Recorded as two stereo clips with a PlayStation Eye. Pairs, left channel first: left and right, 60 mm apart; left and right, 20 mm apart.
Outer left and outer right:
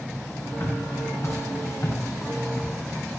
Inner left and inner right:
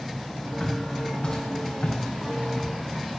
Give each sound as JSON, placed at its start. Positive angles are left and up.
{"t": 0.6, "sound": "footsteps", "side_deg": 50, "distance_m": 7.0}